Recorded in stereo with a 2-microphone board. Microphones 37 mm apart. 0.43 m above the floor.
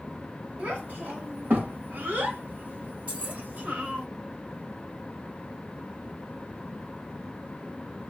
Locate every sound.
0.6 s a child speaking: 50° right (ahead or behind), 1.8 m; by 4.1 s 40° right (ahead or behind), 1.3 m
3.1 s keys jangling: 40° right (ahead or behind), 1.9 m